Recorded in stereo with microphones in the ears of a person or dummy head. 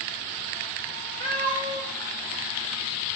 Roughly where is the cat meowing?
Right.